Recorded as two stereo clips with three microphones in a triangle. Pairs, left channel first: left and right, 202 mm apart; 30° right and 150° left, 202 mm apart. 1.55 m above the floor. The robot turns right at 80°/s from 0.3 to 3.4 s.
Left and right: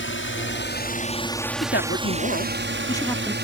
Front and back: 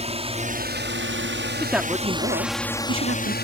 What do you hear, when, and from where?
0.0 s a drone: 95° left; by 3.5 s 65° right
1.6 s a man speaking: 55° left; by 3.4 s 170° right